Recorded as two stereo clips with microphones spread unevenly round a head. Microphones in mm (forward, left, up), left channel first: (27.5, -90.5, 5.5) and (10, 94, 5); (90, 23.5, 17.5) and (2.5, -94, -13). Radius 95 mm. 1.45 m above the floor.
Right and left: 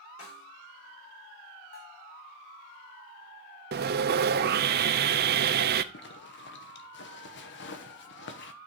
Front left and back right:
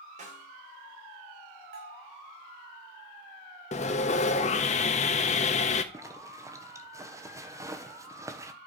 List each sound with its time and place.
0.2 s a snare drum: 90° right, 5 m
1.7 s a bell: 130° right, 5 m
3.7 s sawing: 70° left, 0.6 m
5.9 s a zipper: 60° right, 1.3 m